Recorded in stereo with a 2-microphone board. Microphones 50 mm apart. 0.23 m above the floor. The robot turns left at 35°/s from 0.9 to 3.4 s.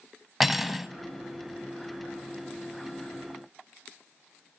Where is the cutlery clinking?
5° right (ahead or behind), 0.7 m.